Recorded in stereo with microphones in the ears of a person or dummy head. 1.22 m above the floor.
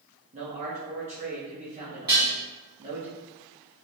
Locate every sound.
0.3 s a man speaking: 35° right (ahead or behind), 1.0 m
2.1 s dishes clattering: 25° right (ahead or behind), 1.2 m